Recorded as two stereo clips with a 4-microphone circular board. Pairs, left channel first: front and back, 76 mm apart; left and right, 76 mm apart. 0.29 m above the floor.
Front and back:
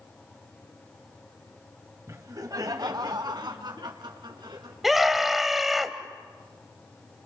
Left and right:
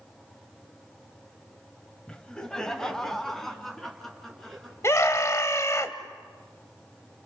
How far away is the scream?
About 1.5 m.